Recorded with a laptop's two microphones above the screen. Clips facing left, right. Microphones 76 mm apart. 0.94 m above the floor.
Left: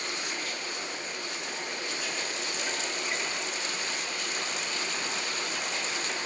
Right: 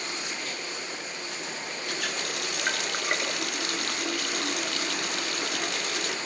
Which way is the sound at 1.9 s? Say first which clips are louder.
Right 2 dB; 70° right (ahead or behind).